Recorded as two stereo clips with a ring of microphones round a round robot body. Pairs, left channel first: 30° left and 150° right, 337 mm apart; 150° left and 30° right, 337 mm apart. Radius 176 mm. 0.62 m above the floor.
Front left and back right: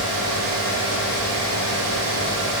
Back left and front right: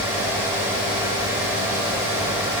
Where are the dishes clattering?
I don't hear dishes clattering.